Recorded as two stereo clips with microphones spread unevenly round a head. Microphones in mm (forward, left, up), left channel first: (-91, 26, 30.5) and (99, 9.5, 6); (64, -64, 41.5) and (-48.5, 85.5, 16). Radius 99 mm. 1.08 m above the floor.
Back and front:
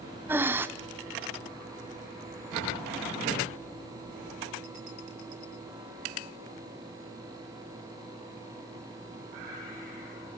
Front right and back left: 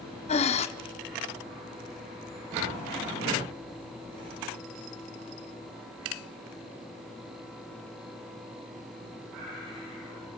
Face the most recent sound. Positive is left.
turn(degrees=-90)